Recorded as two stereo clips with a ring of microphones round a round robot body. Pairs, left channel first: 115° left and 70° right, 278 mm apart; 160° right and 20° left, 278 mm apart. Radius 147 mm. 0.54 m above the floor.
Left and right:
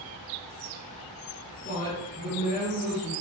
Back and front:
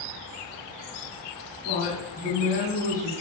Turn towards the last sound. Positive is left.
turn(degrees=155)